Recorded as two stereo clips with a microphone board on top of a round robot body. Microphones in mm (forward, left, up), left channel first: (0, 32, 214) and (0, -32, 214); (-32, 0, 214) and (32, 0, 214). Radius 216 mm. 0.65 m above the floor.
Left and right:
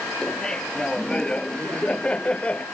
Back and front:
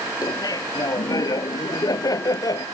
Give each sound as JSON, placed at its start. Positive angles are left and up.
{"t": 0.2, "sound": "laughter", "azimuth_deg": 170}